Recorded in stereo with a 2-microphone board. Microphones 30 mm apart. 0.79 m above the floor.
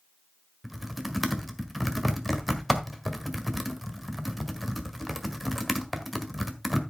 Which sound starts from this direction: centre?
Typing on a keyboard, at 0.6 s.